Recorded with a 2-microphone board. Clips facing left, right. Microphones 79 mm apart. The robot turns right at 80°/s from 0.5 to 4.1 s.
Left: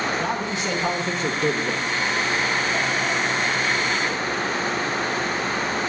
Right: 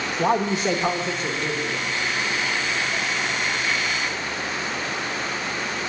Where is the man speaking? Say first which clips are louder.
Right 4 dB; 40° right, 0.8 m; by 1.8 s 70° left, 0.8 m.